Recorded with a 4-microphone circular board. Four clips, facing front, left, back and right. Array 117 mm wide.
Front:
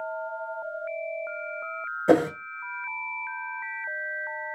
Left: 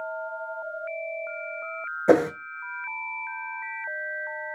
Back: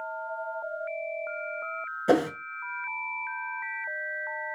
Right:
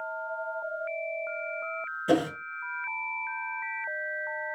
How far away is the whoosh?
About 0.5 m.